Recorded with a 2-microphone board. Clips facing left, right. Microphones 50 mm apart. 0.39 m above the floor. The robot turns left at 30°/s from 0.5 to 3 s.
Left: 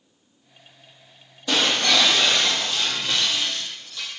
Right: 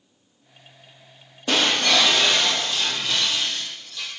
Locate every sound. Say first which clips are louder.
1.5 s breaking glass: right 1 dB; 140° right, 5 m; by 4.1 s 175° left, 5 m